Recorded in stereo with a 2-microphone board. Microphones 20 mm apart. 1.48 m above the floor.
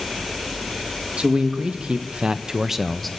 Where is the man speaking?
80° right, 2.0 m; by 3.1 s 10° left (ahead or behind), 1.1 m.